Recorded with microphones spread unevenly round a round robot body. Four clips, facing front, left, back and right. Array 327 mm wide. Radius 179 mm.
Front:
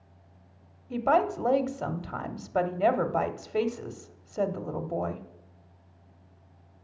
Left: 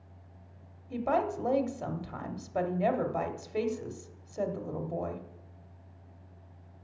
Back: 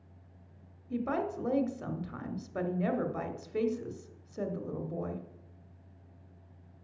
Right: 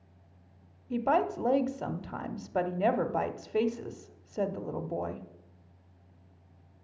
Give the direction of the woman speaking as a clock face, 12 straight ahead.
1 o'clock.